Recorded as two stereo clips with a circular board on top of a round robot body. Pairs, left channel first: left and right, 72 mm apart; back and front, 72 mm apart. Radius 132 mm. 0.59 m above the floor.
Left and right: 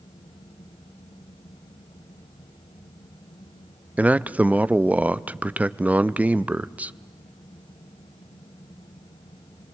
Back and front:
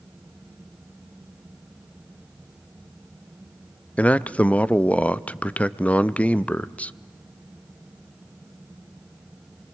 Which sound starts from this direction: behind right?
A man speaking, at 4.0 s.